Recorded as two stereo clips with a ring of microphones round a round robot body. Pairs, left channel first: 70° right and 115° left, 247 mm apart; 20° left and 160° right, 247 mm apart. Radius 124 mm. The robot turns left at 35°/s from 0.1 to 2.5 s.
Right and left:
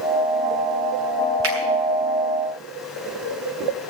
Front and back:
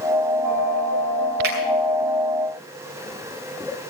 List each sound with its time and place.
1.4 s a finger snap: 150° left, 6.5 m; by 1.6 s 145° left, 6.5 m